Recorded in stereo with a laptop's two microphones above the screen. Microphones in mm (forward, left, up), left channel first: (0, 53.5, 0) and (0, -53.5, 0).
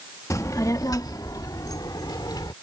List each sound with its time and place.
0.3 s a child speaking: 30° left (ahead or behind); by 2.5 s 40° left (ahead or behind)